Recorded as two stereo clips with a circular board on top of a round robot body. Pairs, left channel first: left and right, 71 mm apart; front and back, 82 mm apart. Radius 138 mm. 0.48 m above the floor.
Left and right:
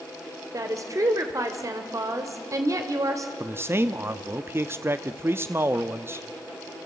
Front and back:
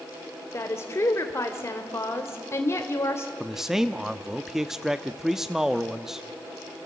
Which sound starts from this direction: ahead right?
A woman speaking, at 0.5 s.